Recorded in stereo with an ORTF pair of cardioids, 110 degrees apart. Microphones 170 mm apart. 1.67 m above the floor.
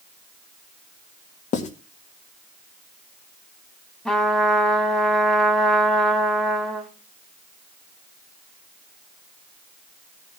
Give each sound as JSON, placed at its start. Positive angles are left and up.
{"t": 1.5, "sound": "writing", "azimuth_deg": 50, "distance_m": 2.0}
{"t": 4.0, "sound": "a trumpet", "azimuth_deg": 0, "distance_m": 3.0}